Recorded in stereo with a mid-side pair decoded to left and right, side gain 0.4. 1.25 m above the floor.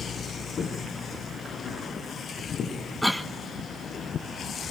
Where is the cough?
5° right, 1.6 m.